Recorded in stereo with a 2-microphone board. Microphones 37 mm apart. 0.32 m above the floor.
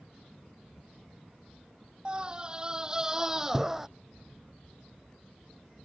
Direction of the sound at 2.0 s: 25° right (ahead or behind).